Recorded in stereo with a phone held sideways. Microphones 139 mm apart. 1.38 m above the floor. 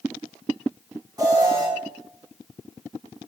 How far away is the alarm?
About 7.5 m.